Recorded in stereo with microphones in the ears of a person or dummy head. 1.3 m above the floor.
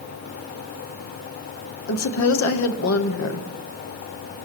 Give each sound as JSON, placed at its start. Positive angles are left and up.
{"t": 1.9, "sound": "a woman speaking", "side_deg": 80, "distance_m": 1.1}